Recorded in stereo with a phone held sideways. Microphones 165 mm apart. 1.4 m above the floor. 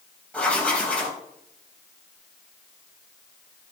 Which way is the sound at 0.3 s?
5° left (ahead or behind).